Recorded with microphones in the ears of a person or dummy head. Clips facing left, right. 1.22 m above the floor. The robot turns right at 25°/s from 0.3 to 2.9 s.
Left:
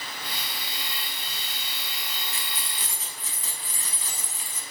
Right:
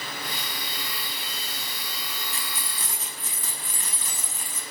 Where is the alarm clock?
I don't hear an alarm clock.